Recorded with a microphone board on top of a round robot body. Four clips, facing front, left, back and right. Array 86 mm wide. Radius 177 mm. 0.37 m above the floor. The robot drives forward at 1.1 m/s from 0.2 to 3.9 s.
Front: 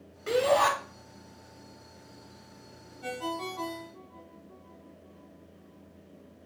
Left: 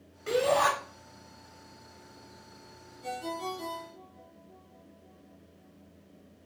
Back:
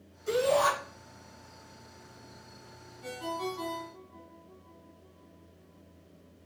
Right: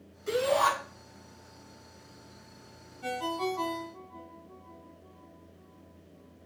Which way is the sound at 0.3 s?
35° left.